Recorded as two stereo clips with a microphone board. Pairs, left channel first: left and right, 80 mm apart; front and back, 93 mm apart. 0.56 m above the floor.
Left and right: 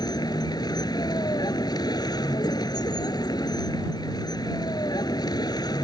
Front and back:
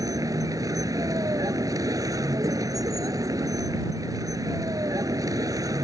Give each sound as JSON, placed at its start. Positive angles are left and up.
{"t": 0.0, "sound": "a vehicle", "azimuth_deg": 130}